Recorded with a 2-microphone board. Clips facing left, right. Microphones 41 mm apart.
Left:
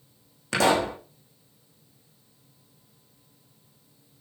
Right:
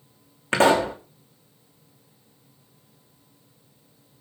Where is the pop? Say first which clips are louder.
Right 4 dB; 35° right (ahead or behind), 2.5 m.